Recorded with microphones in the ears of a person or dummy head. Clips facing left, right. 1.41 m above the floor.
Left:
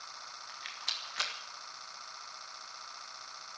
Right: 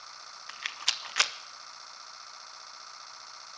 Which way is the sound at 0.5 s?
65° right (ahead or behind).